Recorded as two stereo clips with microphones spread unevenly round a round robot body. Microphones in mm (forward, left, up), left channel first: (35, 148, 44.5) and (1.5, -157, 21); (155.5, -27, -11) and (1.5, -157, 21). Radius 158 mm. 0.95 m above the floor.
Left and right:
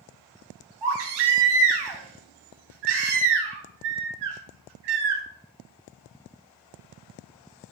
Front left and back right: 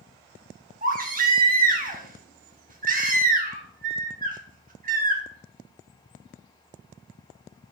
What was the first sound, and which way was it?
A baby crying, 95° right.